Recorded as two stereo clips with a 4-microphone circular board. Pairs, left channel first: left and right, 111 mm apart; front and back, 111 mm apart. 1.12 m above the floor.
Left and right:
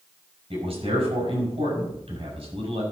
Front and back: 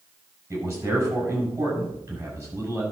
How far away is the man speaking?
About 6 m.